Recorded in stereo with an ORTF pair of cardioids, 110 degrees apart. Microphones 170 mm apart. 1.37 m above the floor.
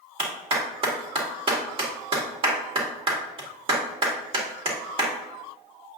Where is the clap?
30° right, 2.5 m.